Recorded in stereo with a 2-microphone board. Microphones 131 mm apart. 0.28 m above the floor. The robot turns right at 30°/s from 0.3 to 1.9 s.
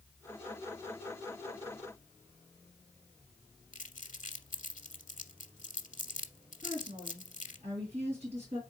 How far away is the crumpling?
About 0.7 m.